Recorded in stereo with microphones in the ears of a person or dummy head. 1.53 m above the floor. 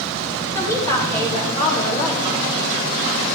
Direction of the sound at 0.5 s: 20° left (ahead or behind).